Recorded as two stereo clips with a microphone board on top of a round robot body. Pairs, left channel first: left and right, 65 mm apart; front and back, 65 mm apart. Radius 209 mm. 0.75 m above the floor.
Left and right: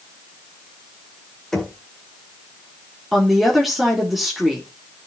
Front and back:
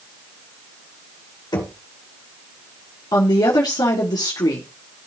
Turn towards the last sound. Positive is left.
turn(degrees=0)